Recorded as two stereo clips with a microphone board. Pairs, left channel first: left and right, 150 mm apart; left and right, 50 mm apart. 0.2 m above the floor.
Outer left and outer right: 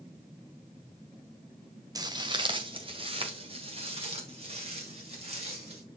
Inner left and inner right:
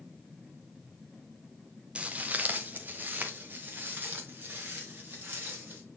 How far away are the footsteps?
About 0.7 m.